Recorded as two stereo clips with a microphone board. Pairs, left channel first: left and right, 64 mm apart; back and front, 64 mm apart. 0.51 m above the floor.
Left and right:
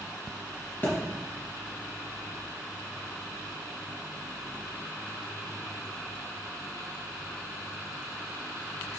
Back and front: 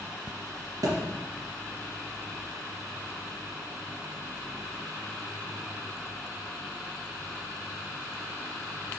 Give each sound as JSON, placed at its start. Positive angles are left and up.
{"t": 0.8, "sound": "a thud", "azimuth_deg": 30, "distance_m": 2.5}